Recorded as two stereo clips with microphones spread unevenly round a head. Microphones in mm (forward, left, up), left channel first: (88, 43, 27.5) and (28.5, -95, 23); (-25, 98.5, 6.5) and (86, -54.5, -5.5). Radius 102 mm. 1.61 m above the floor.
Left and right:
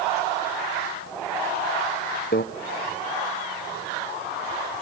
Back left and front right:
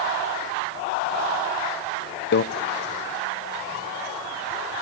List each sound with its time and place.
2.3 s a microwave: 105° left, 0.7 m